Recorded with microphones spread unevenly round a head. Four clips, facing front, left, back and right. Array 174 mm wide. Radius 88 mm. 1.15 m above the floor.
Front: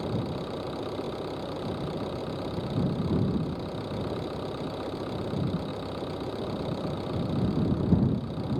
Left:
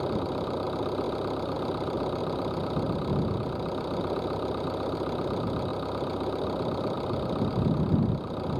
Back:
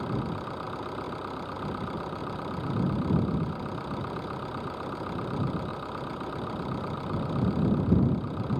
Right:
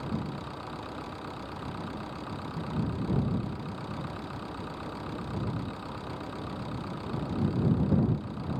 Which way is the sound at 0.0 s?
85° left.